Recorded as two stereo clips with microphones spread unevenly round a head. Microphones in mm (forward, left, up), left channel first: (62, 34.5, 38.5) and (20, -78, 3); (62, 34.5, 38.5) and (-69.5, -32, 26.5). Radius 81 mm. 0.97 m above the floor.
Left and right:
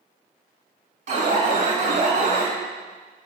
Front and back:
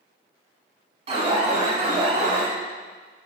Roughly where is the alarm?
Right.